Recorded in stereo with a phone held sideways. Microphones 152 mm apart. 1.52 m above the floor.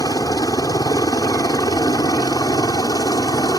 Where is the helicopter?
25° left (ahead or behind).